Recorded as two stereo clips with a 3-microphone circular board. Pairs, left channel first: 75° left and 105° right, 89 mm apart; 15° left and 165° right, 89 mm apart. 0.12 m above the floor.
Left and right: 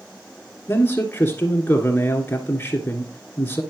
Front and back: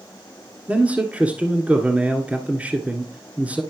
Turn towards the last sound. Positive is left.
turn(degrees=130)